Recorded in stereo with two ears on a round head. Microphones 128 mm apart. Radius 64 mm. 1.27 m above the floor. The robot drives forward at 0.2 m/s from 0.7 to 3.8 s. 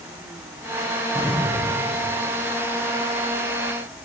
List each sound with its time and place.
1.1 s an explosion: 10° right (ahead or behind), 9 m